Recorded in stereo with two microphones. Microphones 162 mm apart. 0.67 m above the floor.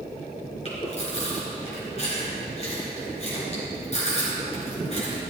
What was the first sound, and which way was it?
Chewing, 40° left (ahead or behind).